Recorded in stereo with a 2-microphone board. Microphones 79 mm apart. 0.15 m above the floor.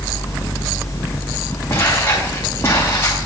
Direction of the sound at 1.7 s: 30° left (ahead or behind).